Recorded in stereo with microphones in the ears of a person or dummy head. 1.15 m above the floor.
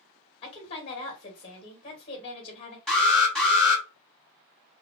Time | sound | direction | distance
0.4 | a woman speaking | 35° left (ahead or behind) | 1.2 m
2.9 | an alarm | 5° left (ahead or behind) | 1.7 m